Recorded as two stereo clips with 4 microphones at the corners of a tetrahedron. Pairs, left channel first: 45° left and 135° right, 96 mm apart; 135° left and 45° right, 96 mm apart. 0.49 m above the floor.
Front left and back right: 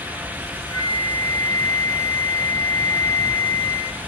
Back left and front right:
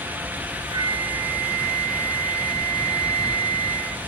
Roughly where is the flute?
Ahead.